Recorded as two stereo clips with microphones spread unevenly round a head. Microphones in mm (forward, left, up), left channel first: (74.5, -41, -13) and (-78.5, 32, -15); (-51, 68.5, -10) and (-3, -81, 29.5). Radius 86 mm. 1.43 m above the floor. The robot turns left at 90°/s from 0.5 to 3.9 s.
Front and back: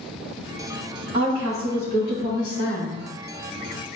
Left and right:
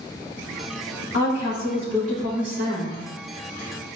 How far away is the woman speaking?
About 2.5 m.